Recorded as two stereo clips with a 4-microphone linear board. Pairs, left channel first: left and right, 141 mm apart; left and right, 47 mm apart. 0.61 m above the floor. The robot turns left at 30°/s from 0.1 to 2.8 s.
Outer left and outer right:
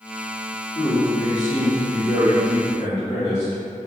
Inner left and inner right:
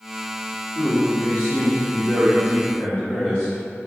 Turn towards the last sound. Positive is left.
turn(degrees=40)